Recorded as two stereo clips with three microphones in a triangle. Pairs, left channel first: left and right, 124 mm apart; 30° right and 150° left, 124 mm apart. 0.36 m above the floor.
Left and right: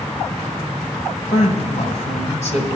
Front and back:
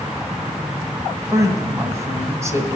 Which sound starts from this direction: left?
A woman speaking, at 1.3 s.